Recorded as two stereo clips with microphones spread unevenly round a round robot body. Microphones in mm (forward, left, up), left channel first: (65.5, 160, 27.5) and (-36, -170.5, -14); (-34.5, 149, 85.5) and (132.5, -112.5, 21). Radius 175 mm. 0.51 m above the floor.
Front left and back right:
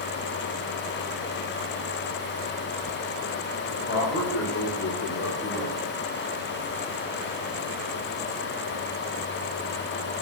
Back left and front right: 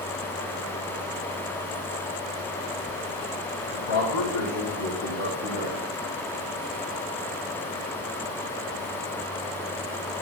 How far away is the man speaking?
About 3.5 m.